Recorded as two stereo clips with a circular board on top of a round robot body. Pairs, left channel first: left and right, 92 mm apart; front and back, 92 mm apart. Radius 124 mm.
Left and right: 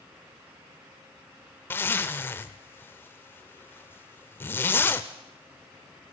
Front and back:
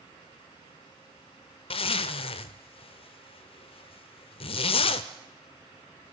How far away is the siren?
I don't hear a siren.